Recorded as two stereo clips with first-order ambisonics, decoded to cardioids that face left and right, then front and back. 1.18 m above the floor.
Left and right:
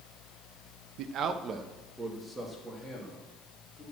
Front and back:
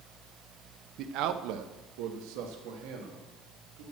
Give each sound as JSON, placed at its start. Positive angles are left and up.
{"t": 1.0, "sound": "a man speaking", "azimuth_deg": -130, "distance_m": 0.6}